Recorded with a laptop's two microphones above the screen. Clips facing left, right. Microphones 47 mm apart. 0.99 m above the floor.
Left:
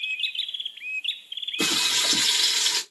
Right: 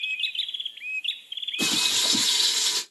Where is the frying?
80° left, 2.5 m.